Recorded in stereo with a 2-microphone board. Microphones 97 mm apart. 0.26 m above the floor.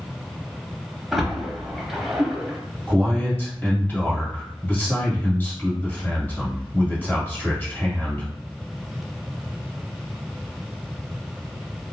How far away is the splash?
About 0.9 m.